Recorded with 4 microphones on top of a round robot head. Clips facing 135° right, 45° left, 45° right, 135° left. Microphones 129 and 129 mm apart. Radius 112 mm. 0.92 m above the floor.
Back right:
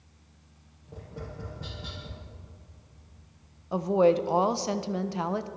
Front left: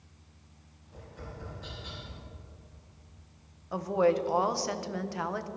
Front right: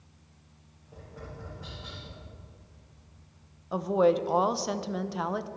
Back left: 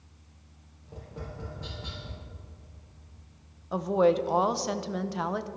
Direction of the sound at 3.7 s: 135° right.